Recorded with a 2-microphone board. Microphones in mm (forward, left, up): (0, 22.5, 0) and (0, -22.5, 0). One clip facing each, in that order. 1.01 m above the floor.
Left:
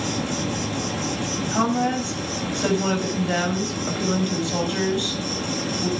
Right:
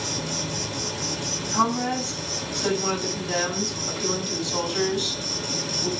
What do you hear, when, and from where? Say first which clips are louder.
0.0 s an insect: left 5 dB; 35° left (ahead or behind), 2 m
1.5 s a woman speaking: left 1 dB; 45° left (ahead or behind), 6.5 m